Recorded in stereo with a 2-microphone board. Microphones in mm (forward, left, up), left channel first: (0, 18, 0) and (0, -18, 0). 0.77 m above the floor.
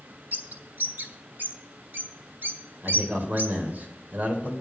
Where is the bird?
70° right (ahead or behind), 1.3 m.